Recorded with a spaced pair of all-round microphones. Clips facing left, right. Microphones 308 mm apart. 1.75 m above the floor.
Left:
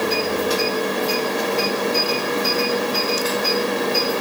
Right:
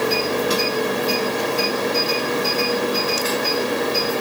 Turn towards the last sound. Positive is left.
No sound to turn to.